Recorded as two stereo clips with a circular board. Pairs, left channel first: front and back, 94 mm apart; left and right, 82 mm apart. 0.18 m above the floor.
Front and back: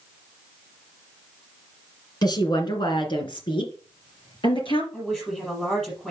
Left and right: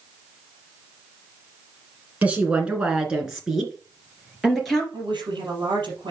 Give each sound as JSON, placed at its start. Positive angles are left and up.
{"t": 2.2, "sound": "a woman speaking", "azimuth_deg": -20, "distance_m": 2.5}
{"t": 4.9, "sound": "a woman speaking", "azimuth_deg": -80, "distance_m": 4.5}